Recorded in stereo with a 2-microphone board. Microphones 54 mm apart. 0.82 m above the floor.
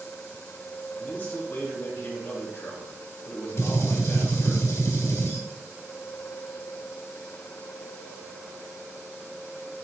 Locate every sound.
1.0 s a man speaking: 40° left (ahead or behind), 3 m
3.6 s a gunshot: 65° left (ahead or behind), 1.6 m